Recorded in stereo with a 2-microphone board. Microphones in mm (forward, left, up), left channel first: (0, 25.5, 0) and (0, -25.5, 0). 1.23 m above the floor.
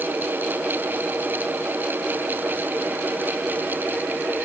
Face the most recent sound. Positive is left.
No sound to turn to.